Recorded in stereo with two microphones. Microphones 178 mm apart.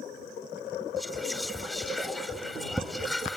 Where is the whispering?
Centre (ahead or behind).